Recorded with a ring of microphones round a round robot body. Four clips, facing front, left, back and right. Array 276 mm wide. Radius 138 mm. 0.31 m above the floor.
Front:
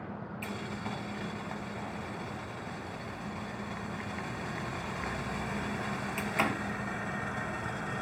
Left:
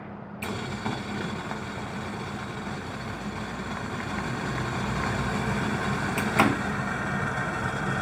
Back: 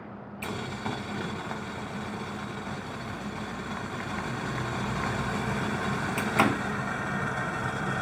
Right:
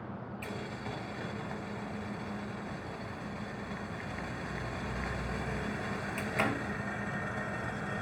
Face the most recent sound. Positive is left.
turn(degrees=120)